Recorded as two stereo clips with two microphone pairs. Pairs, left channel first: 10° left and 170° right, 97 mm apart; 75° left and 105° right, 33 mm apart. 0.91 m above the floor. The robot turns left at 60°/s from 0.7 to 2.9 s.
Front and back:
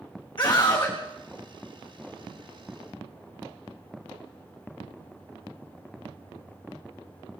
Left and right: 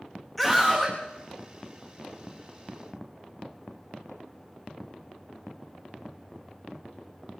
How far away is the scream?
About 1.4 m.